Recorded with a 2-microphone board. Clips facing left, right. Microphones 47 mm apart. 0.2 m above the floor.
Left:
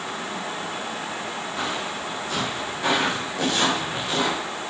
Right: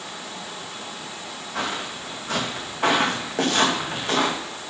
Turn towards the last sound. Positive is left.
turn(degrees=-50)  # may be behind; listen again after turning